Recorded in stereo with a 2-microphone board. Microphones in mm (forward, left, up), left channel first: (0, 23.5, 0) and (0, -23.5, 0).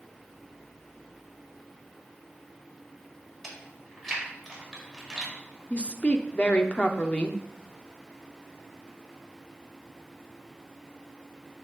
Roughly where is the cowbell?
No cowbell in this recording.